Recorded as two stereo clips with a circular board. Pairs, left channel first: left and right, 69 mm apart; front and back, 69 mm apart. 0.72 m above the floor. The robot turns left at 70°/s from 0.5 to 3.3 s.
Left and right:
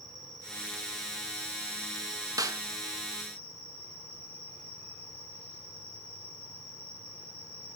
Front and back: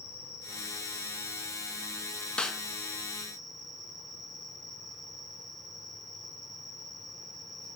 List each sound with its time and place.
0.0 s an insect: 100° left, 5.5 m; by 7.8 s 95° right, 5.5 m
2.4 s a snare drum: 75° right, 1.1 m; by 2.6 s 90° right, 1.1 m